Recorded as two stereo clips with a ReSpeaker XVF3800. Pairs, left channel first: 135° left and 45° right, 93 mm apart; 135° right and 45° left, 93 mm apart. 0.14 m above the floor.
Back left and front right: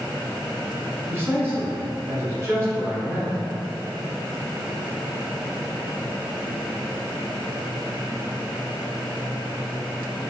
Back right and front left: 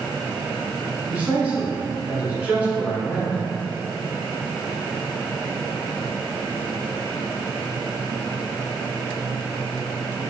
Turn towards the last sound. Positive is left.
turn(degrees=-10)